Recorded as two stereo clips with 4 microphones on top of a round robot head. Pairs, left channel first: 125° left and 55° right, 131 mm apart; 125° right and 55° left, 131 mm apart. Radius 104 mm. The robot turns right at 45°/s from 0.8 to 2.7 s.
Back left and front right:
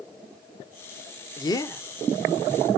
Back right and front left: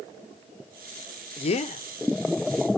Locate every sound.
1.4 s a man speaking: straight behind, 0.7 m; by 1.8 s 160° right, 0.7 m